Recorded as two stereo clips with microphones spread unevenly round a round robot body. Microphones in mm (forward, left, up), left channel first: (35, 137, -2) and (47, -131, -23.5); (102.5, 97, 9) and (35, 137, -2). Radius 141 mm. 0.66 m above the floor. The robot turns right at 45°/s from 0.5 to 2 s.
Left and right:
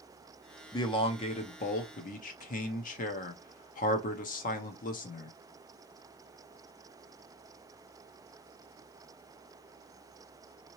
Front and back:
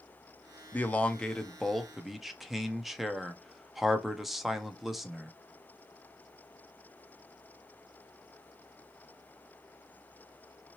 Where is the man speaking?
25° left, 0.6 m; by 5.3 s 85° left, 0.6 m.